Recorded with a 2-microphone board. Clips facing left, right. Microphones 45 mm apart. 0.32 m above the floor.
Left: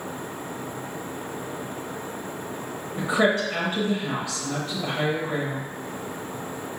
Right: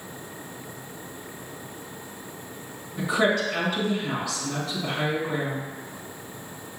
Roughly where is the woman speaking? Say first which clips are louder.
Left 1 dB; left.